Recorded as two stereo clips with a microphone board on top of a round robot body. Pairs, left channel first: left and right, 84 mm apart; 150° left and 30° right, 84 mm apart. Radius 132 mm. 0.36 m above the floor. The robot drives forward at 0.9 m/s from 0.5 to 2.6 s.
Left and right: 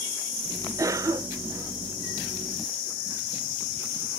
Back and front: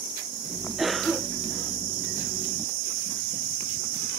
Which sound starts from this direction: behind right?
A cough, at 0.8 s.